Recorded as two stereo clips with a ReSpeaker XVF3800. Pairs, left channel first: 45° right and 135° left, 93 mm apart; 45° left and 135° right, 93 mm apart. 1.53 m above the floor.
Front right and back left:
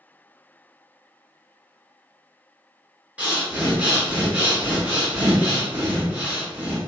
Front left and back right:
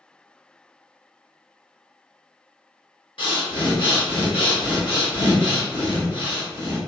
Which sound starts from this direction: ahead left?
Breathing, at 3.2 s.